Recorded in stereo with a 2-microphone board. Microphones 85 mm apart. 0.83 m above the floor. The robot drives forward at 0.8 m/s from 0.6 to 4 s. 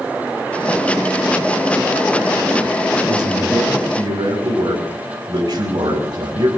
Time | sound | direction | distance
3.1 | a man speaking | 55° right (ahead or behind) | 6 m